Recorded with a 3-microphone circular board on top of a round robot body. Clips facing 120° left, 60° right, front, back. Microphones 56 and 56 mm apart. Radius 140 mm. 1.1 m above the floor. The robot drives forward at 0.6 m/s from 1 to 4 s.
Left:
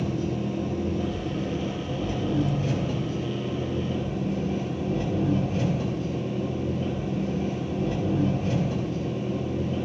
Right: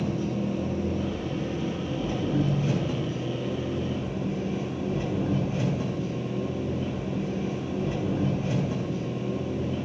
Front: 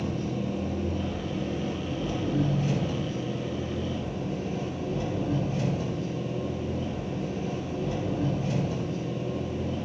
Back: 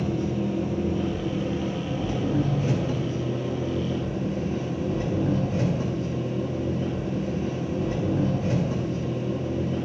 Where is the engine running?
115° right, 5.5 m; by 9.9 s 130° right, 6.5 m.